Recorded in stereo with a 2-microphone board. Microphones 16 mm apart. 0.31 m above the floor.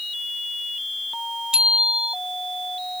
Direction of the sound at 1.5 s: 60° right (ahead or behind).